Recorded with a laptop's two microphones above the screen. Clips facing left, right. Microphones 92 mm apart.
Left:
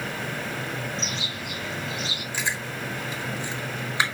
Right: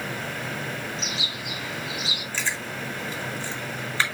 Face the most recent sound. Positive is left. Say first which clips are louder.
# left 1 dB
turn(degrees=15)  # may be behind; listen again after turning